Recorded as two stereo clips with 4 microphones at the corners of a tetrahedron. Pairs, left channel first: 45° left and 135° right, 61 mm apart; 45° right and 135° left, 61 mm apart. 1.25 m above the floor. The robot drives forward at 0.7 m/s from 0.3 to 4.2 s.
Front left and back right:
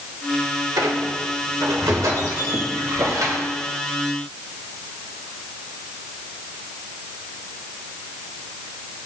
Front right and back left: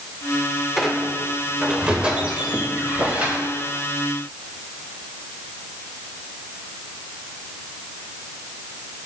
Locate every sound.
0.8 s a squeak: 135° right, 1.6 m; by 3.4 s 160° right, 3 m